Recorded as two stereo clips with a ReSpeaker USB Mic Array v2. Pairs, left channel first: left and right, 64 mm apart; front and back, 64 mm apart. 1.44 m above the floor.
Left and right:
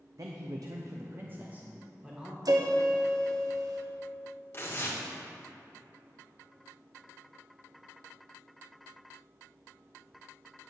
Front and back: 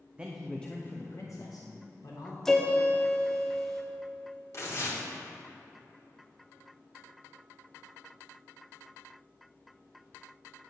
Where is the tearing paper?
40° left, 1.6 m.